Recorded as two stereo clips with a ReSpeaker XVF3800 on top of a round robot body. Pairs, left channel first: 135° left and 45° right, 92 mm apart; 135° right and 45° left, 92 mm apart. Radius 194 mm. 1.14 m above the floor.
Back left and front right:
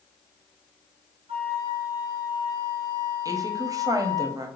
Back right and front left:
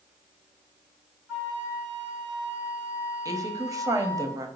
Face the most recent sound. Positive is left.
turn(degrees=0)